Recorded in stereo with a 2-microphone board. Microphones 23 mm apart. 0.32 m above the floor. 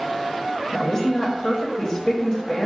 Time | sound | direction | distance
0.7 | a woman speaking | 35° left (ahead or behind) | 1.1 m